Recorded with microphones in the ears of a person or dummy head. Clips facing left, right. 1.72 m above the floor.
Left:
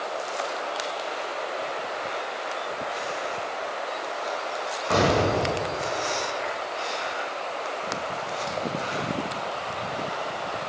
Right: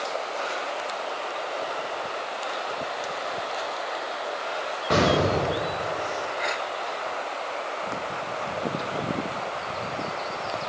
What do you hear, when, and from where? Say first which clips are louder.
4.9 s an explosion: even; 15° right (ahead or behind), 1.0 m